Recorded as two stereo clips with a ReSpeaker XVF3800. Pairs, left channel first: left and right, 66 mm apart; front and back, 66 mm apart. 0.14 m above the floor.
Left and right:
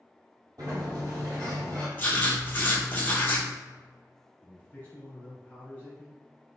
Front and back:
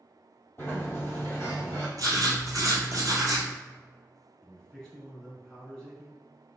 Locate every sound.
0.6 s a sliding door: 65° right, 1.8 m
2.0 s writing: 150° left, 0.9 m
4.4 s a man speaking: 70° left, 1.3 m